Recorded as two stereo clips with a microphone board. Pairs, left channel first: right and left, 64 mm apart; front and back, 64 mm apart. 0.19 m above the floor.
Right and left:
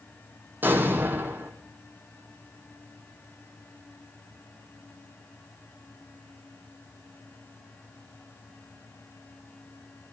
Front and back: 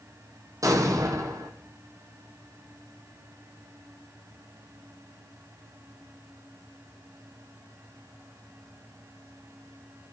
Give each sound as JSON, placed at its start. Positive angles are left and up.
{"t": 0.6, "sound": "an explosion", "azimuth_deg": 150, "distance_m": 2.0}